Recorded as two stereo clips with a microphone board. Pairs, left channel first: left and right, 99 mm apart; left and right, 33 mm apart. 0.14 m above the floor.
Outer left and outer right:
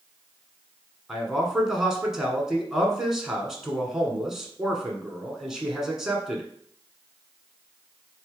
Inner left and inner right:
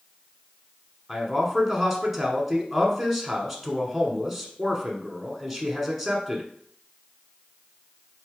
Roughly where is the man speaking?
Centre.